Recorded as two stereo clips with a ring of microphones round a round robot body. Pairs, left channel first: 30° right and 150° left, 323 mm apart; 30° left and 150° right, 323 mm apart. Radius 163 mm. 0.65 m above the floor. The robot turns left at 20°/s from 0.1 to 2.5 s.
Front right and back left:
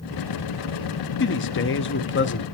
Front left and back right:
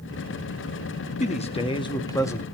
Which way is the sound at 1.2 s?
25° right.